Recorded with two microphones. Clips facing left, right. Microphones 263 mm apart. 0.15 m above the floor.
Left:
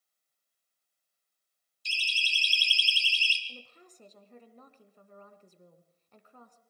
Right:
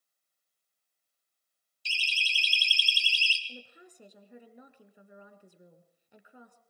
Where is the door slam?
No door slam in this recording.